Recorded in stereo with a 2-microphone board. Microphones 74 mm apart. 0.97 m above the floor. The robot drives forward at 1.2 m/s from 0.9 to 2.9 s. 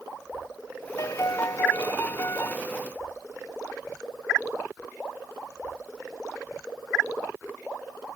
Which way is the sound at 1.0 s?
45° left (ahead or behind).